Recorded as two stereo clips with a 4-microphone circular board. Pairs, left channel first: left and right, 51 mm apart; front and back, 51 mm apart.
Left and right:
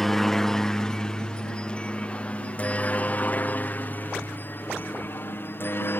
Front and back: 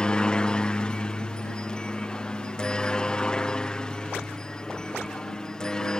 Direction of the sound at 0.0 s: 20° left.